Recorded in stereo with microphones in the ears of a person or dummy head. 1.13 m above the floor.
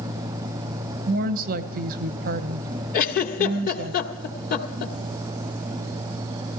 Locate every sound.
1.1 s a woman speaking: 50° right (ahead or behind), 1.0 m
2.9 s a giggle: 55° left (ahead or behind), 1.6 m